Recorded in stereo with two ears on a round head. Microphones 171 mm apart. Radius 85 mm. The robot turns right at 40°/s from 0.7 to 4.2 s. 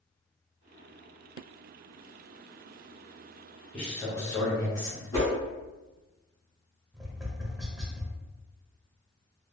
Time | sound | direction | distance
3.7 | a man speaking | 5° left (ahead or behind) | 1.4 m
5.1 | a whoosh | 20° left (ahead or behind) | 1.3 m
6.9 | tapping | centre (ahead or behind) | 0.6 m